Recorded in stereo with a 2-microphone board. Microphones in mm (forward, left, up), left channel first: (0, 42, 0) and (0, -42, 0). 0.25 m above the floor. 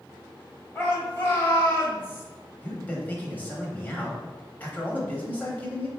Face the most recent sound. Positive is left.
turn(degrees=20)  # may be behind; listen again after turning